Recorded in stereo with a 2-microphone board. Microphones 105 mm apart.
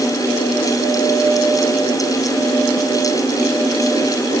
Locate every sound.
Only background noise.